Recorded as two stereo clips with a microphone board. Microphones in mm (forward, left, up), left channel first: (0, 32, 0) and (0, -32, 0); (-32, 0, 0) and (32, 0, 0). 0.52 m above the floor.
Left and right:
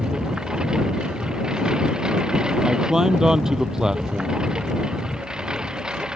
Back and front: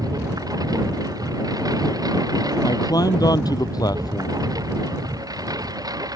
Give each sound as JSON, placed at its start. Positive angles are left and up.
{"t": 0.0, "sound": "a lawn mower", "azimuth_deg": -10}
{"t": 2.6, "sound": "a man speaking", "azimuth_deg": -170}